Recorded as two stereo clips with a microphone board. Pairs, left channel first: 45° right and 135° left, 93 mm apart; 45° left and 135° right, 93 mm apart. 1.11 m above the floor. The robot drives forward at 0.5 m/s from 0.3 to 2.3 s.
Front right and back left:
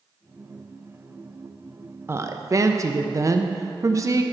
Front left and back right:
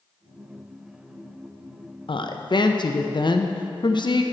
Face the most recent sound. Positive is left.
turn(degrees=80)